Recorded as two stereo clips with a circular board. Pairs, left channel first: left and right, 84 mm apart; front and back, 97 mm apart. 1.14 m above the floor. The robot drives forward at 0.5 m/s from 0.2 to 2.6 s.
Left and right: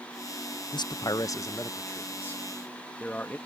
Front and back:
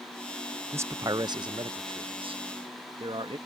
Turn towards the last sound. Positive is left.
turn(degrees=160)